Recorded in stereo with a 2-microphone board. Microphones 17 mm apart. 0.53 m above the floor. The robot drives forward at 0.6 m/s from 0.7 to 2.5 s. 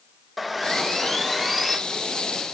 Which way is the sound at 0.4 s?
5° left (ahead or behind).